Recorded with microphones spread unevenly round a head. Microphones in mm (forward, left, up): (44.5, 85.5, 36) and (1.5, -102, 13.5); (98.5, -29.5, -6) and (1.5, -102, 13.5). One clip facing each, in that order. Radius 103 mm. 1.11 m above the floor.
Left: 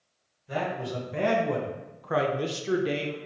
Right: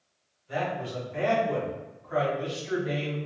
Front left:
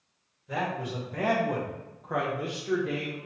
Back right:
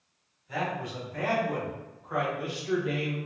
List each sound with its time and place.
0.5 s a man speaking: 45° left, 1.6 m; by 3.2 s 150° left, 0.7 m